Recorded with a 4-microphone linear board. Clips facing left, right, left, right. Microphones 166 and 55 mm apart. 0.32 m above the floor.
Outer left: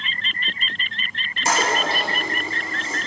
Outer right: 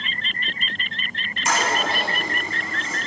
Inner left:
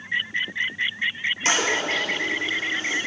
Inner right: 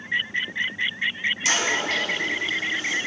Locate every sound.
1.4 s a toilet flushing: 40° left (ahead or behind), 3.5 m